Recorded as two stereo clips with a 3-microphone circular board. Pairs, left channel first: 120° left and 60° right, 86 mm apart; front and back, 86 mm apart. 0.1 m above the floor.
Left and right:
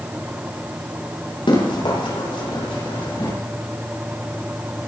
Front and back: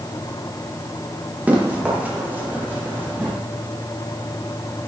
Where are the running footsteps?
105° left, 6 m; by 3.3 s 115° left, 8.5 m.